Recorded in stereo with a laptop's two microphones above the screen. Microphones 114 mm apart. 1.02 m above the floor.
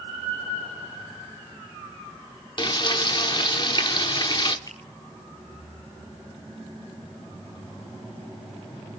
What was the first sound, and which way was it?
Frying, 40° left (ahead or behind).